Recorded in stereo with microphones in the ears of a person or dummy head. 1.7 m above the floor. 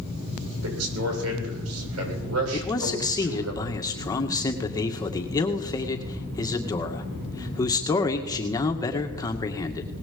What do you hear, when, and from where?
0.6 s a man speaking: 80° right, 8 m
2.5 s a man speaking: 20° left (ahead or behind), 2 m